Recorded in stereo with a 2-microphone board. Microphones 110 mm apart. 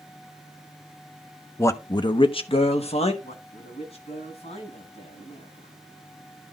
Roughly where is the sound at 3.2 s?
Left.